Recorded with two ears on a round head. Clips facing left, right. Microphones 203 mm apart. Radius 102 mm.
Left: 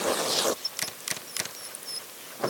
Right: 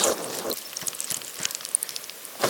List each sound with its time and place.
Only background noise.